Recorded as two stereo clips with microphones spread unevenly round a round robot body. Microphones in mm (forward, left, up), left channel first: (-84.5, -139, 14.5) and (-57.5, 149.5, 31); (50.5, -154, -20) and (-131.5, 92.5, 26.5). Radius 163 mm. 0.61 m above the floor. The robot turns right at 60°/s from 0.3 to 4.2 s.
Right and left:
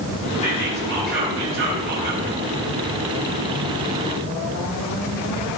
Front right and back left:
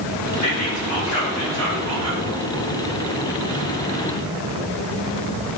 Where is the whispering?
45° right, 7 m; by 2.2 s 65° left, 7 m.